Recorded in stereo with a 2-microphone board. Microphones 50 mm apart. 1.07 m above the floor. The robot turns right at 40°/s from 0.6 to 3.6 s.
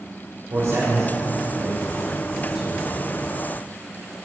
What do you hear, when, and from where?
0.5 s a man speaking: 80° right, 3.5 m; by 2.8 s 5° left (ahead or behind), 3.5 m